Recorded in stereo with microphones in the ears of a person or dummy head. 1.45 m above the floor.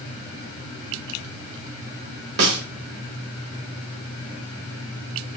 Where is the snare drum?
65° right (ahead or behind), 4 m.